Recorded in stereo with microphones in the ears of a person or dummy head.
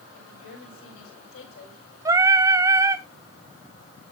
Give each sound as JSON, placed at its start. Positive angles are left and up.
{"t": 0.1, "sound": "a woman speaking", "side_deg": 90, "distance_m": 8.0}
{"t": 2.0, "sound": "singing", "side_deg": -20, "distance_m": 0.7}